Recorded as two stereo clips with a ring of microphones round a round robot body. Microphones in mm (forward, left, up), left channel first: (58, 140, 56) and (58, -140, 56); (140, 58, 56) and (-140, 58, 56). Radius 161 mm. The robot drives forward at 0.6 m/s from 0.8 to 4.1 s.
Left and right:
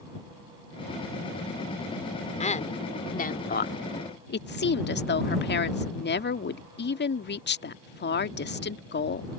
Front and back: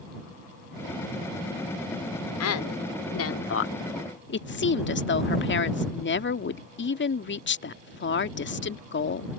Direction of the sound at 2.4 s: 25° left.